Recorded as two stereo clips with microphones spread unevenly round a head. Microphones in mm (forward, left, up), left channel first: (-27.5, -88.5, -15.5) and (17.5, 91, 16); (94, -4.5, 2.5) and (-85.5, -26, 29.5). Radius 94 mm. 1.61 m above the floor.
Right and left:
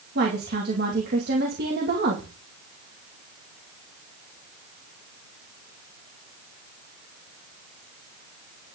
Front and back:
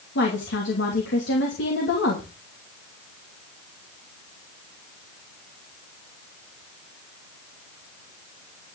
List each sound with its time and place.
0.1 s a woman speaking: 40° left, 2.5 m